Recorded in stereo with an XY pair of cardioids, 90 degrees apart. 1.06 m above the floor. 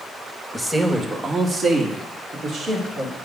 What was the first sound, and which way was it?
A man speaking, 5° right.